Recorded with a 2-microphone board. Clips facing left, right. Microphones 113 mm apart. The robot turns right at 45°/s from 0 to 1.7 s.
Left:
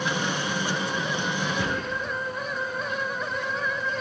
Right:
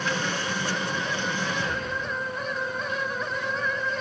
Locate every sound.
1.6 s a gunshot: 75° left (ahead or behind), 5.5 m